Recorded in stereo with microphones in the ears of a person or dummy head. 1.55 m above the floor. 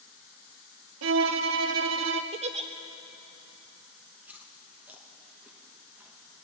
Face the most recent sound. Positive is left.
turn(degrees=-10)  # may be behind; listen again after turning